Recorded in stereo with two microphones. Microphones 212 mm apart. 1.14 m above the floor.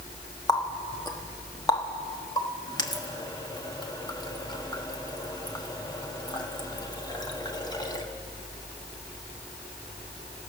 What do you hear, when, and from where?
0.5 s a running tap: 20° left (ahead or behind), 1.4 m